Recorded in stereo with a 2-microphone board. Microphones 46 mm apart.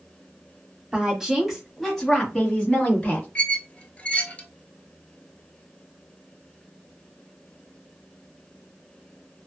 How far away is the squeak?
About 0.7 m.